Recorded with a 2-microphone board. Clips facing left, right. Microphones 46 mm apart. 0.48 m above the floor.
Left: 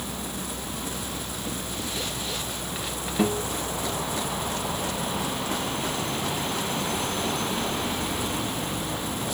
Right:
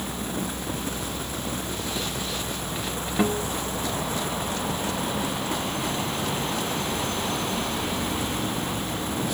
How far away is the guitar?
About 1.5 m.